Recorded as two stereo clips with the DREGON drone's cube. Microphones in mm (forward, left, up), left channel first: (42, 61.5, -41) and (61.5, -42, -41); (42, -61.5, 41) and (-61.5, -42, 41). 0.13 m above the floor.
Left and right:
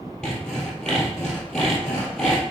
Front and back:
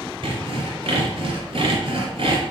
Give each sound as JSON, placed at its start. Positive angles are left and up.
{"t": 0.2, "sound": "sawing", "azimuth_deg": -175, "distance_m": 2.5}